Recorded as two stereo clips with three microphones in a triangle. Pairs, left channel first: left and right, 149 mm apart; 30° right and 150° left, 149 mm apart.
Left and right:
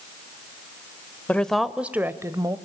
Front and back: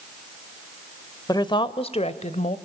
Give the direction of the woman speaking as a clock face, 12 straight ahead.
12 o'clock.